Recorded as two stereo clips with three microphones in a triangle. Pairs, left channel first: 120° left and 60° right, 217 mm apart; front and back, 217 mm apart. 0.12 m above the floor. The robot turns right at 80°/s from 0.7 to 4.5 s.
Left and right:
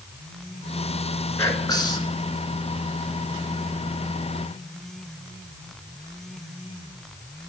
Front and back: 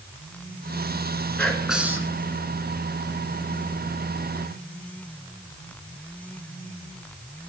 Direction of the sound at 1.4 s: 75° left.